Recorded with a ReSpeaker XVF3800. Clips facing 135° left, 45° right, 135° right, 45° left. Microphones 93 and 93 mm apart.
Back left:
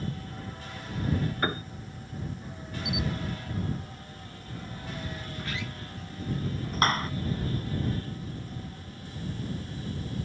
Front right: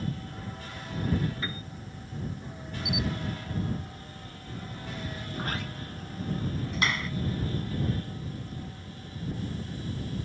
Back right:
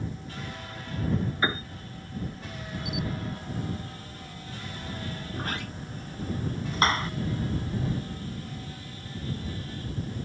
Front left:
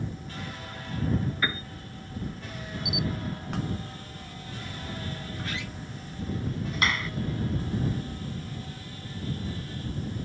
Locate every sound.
1.4 s a piano: 165° left
2.9 s a camera shutter: 125° left
5.3 s a sliding door: 90° right
6.7 s a clap: 175° left